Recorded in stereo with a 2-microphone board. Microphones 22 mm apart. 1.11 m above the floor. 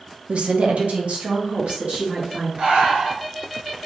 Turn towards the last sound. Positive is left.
turn(degrees=-60)  # may be behind; listen again after turning